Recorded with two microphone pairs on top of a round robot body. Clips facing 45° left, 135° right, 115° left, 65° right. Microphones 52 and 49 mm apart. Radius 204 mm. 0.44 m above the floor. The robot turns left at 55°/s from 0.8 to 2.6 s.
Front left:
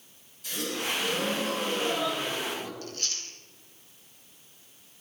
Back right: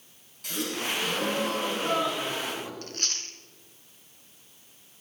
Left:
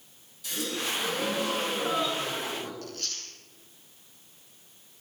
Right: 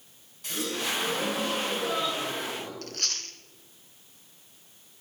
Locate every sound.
0.4 s a gasp: 110° right, 5 m; by 2.7 s 150° left, 5 m
2.8 s chewing: 100° right, 1.1 m